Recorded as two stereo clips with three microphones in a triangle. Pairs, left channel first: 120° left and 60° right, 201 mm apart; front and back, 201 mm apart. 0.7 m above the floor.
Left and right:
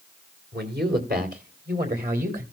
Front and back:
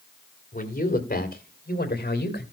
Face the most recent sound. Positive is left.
turn(degrees=-25)